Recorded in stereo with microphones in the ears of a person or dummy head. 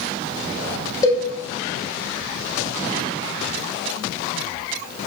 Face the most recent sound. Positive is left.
turn(degrees=15)  # may be behind; listen again after turning